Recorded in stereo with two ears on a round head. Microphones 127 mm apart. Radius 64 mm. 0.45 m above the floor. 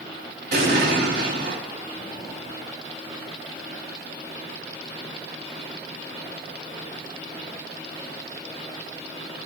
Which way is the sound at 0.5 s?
65° right (ahead or behind).